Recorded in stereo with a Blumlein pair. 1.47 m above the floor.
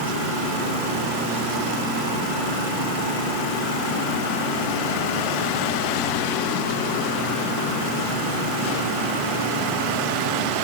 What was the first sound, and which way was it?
Only background noise.